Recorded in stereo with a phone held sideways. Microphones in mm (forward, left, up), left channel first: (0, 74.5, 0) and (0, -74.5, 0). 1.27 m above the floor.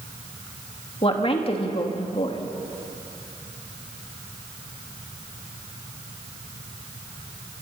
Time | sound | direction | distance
1.0 | a woman speaking | 40° left (ahead or behind) | 2.5 m